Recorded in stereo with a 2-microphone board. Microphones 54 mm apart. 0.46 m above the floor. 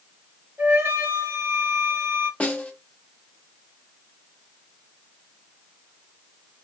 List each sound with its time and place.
0.6 s a flute: 50° right (ahead or behind), 1.2 m
2.4 s a snare drum: 20° left (ahead or behind), 0.7 m